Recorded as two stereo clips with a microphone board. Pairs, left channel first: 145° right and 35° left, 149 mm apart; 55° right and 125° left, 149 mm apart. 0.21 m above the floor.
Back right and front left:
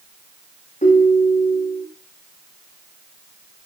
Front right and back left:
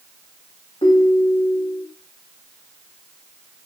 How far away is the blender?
No blender in this recording.